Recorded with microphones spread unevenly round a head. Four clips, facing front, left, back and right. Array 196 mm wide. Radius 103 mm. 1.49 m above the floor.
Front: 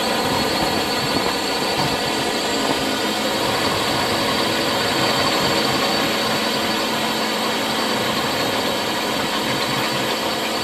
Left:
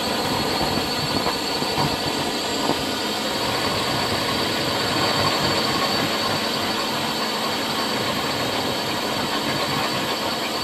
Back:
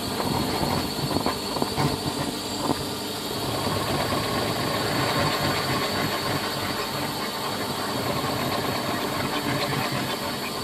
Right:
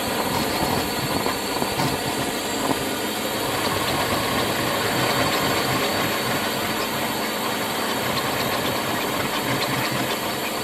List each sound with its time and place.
0.0 s a drone: straight ahead